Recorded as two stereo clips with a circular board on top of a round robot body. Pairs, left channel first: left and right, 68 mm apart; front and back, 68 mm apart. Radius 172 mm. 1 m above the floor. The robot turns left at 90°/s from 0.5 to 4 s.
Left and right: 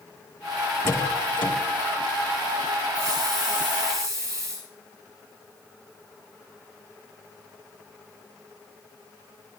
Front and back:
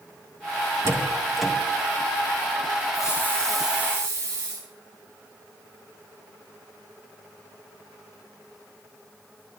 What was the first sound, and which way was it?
A door slam, 140° left.